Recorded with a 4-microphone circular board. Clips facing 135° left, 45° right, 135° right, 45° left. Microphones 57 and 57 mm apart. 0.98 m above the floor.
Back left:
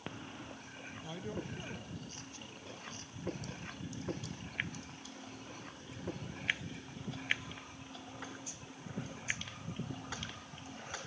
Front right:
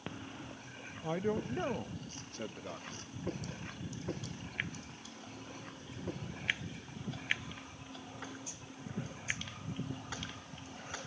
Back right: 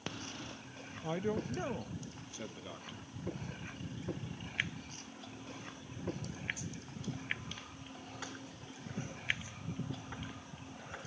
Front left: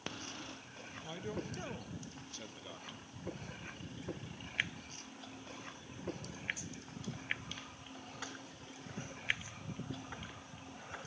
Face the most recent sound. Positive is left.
turn(degrees=-60)